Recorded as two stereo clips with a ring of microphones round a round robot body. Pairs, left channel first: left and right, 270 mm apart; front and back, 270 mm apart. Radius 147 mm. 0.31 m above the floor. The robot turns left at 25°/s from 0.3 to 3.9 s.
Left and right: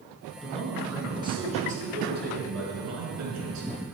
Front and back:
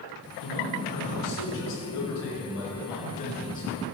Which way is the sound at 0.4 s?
5° left.